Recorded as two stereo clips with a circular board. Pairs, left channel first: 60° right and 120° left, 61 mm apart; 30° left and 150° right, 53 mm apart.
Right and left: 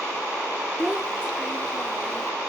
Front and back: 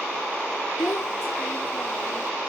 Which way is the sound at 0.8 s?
45° left.